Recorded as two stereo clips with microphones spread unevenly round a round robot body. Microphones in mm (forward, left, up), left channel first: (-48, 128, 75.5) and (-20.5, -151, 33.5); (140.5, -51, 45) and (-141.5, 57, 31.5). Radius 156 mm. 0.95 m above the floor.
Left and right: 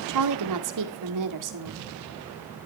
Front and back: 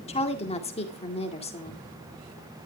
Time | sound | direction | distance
0.1 | a woman speaking | 90° right | 2 m